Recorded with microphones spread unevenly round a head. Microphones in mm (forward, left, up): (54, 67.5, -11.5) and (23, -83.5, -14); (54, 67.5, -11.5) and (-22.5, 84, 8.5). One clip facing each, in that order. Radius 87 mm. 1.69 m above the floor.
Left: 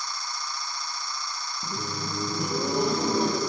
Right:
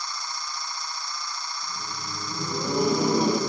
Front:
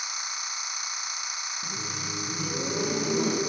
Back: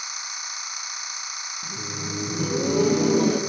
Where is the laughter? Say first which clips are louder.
Left 4 dB, back 5 dB; 85° left, 1.0 m; by 3.4 s straight behind, 2 m.